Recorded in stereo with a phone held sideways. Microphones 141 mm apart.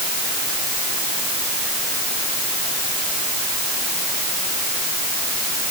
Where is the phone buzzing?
I don't hear a phone buzzing.